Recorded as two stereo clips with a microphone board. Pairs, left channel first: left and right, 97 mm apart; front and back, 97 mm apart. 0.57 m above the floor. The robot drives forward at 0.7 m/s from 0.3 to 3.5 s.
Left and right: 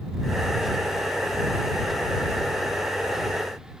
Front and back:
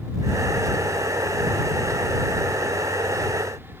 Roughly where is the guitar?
No guitar in this recording.